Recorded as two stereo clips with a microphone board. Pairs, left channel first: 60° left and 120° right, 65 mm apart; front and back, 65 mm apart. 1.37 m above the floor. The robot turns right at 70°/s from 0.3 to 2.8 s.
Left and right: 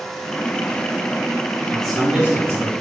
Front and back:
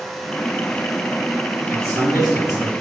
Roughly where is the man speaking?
Behind left.